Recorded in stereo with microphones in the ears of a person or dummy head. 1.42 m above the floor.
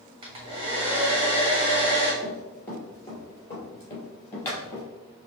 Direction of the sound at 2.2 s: 5° left (ahead or behind).